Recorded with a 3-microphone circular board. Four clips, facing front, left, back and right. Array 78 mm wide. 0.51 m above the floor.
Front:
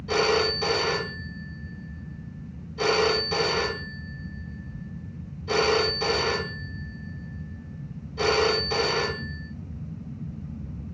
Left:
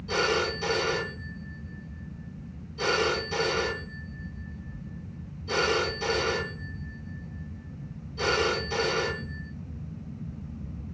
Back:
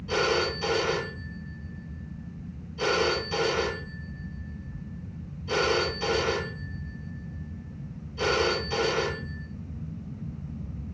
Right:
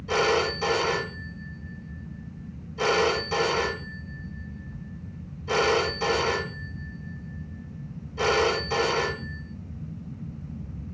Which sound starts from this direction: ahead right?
A phone ringing, at 0.1 s.